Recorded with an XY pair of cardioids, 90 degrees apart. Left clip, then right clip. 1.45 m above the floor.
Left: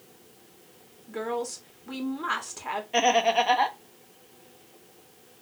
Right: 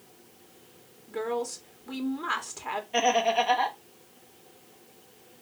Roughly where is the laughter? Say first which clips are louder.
Left 2 dB; ahead left.